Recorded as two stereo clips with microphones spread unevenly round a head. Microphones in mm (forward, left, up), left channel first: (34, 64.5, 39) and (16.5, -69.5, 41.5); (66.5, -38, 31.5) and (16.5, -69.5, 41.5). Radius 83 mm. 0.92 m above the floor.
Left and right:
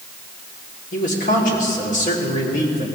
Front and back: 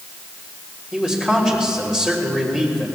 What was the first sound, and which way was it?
A man speaking, 115° left.